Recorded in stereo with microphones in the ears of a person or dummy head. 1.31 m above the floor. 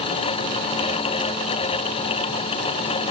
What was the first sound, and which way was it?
Only background noise.